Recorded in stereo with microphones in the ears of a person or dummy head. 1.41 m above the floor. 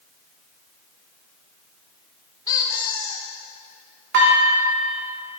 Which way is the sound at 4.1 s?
60° right (ahead or behind).